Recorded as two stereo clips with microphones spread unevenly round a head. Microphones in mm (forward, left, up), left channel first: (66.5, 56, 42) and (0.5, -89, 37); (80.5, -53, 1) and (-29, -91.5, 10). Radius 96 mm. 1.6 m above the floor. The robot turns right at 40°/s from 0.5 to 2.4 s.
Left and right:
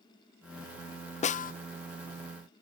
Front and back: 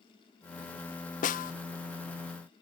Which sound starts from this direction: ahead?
A snare drum, at 1.2 s.